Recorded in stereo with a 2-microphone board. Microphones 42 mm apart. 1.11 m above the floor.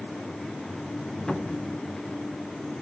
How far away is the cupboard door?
About 1.4 m.